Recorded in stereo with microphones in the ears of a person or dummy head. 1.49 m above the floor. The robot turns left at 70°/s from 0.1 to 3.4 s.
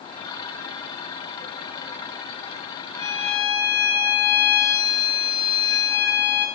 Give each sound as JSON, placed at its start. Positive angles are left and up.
{"t": 3.0, "sound": "a violin", "side_deg": 65, "distance_m": 1.9}